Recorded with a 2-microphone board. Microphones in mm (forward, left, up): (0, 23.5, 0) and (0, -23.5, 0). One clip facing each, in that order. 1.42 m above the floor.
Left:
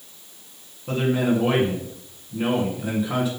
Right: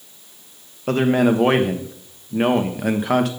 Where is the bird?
No bird in this recording.